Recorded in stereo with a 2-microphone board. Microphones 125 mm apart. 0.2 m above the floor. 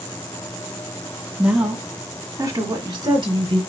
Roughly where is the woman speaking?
Centre.